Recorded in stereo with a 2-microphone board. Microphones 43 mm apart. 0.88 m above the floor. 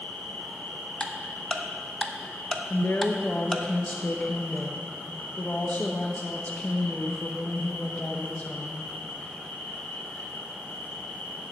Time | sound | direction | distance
0.0 | an insect | 45° left (ahead or behind) | 1.9 m
1.0 | ticking | 15° left (ahead or behind) | 0.7 m
2.7 | a woman speaking | 40° left (ahead or behind) | 0.8 m